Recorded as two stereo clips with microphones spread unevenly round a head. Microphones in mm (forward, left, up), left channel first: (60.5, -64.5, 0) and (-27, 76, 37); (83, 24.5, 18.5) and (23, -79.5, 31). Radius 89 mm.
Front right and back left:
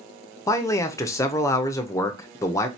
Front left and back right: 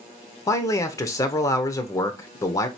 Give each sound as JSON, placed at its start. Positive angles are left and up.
{"t": 0.5, "sound": "a man speaking", "azimuth_deg": 25, "distance_m": 0.6}